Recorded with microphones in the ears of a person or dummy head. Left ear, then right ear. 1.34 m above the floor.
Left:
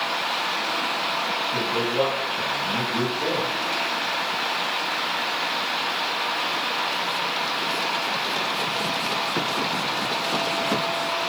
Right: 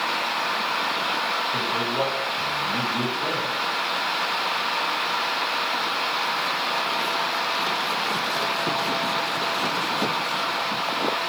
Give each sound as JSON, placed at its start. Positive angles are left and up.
{"t": 1.5, "sound": "a man speaking", "side_deg": 35, "distance_m": 1.8}